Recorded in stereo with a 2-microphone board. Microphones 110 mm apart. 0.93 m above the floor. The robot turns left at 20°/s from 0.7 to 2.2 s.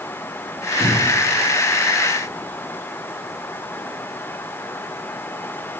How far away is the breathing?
About 2.0 m.